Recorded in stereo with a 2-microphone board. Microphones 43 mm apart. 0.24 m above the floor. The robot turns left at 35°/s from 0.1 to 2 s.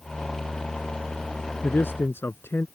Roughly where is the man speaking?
Left.